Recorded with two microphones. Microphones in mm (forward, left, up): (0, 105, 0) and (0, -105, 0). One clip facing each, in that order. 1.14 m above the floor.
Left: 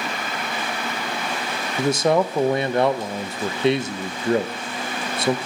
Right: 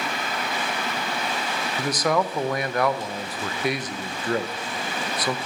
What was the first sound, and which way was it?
A man speaking, 25° left (ahead or behind).